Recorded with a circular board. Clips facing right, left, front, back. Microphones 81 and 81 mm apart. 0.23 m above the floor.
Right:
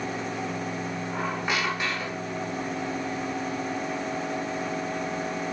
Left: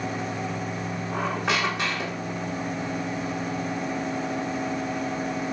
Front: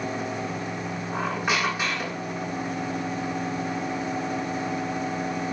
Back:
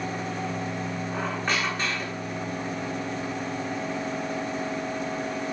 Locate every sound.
1.1 s a squeak: 80° left, 6 m